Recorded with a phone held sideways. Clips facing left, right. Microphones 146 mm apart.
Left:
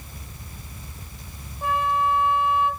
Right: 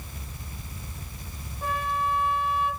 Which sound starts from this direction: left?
A flute, at 1.6 s.